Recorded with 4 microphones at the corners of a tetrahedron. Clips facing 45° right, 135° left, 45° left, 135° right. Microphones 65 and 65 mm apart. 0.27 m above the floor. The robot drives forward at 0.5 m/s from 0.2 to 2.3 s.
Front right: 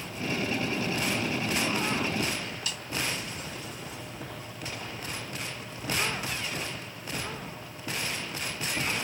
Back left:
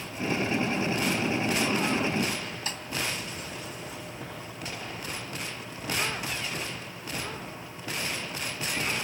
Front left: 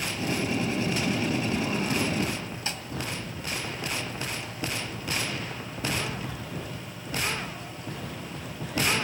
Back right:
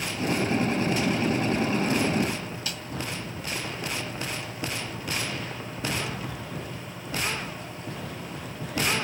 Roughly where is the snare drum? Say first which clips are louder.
Back left 2 dB, front left 1 dB; left.